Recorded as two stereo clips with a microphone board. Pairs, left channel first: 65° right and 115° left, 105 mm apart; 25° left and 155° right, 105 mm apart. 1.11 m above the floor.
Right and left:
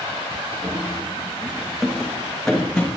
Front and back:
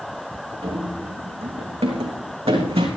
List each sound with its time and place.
0.6 s running footsteps: 175° left, 3.5 m; by 2.9 s 145° right, 3.5 m